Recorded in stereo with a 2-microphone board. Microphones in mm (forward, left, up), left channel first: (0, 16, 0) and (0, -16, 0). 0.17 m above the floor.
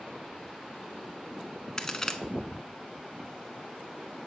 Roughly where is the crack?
Centre.